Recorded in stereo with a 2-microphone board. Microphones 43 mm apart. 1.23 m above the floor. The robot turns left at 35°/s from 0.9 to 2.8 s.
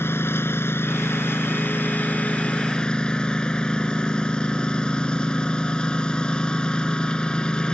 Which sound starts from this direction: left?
A lawn mower, at 0.0 s.